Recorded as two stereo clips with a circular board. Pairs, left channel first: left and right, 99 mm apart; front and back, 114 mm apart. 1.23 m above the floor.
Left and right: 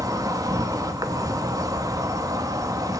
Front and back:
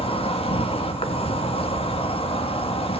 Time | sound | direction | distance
0.0 | an insect | 35° right | 1.7 m